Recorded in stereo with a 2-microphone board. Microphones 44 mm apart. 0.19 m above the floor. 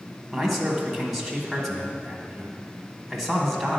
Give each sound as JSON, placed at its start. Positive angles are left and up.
{"t": 0.3, "sound": "a man speaking", "side_deg": 5, "distance_m": 1.0}